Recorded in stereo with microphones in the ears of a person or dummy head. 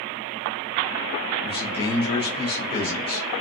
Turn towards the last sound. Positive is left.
turn(degrees=25)  # may be behind; listen again after turning